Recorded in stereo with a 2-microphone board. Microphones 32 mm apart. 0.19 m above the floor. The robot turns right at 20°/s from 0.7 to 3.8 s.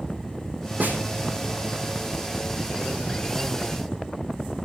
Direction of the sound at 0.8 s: 60° right (ahead or behind).